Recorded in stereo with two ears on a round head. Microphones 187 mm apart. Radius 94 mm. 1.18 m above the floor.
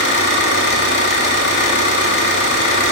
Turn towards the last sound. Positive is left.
turn(degrees=60)  # may be behind; listen again after turning